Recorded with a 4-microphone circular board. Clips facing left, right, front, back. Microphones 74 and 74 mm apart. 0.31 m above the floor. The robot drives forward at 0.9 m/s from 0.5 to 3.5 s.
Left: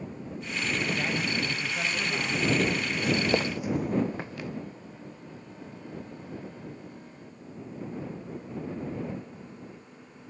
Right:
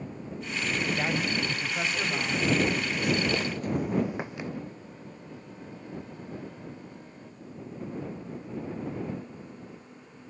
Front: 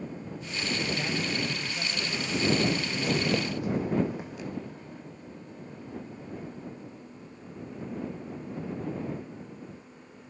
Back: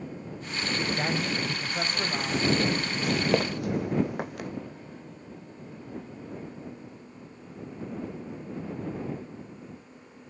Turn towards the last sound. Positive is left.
turn(degrees=-155)